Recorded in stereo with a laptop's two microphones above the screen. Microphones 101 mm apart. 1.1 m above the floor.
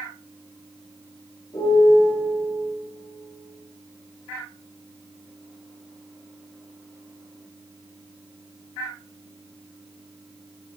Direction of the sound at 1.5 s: 45° left (ahead or behind).